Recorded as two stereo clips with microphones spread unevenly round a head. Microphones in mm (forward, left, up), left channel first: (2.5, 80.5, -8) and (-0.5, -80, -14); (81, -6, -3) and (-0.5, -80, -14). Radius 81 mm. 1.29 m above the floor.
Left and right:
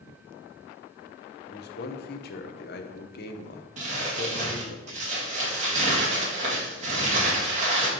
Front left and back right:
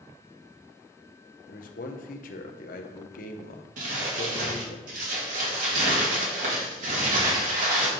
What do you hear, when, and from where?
1.5 s a man speaking: 55° left, 0.8 m
3.8 s crumpling: 145° right, 1.9 m